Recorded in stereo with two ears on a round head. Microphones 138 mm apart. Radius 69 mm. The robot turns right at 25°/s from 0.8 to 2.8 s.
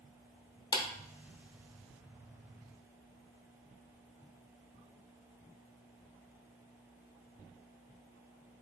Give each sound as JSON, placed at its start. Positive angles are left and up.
{"t": 0.7, "sound": "a clap", "side_deg": 25, "distance_m": 0.7}